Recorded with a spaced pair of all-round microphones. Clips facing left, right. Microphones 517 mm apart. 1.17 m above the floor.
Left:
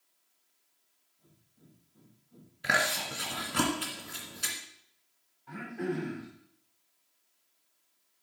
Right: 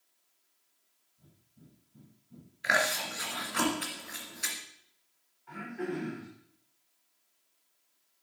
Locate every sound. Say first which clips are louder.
1.2 s breathing: right 3 dB; 45° right (ahead or behind), 1.5 m
2.6 s chewing: right 1 dB; 55° left (ahead or behind), 2 m
5.5 s throat clearing: left 2 dB; 55° left (ahead or behind), 3.5 m